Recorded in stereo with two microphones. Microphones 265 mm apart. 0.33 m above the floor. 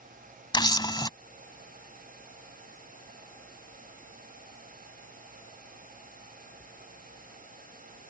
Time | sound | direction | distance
0.5 | a camera shutter | 15° left (ahead or behind) | ?